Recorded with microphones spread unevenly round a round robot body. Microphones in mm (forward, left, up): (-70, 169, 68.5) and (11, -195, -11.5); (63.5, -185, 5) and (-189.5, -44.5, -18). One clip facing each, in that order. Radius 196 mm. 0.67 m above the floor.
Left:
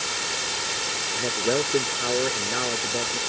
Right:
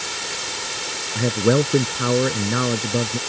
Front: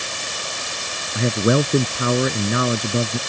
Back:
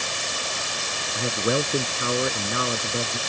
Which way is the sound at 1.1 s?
45° right.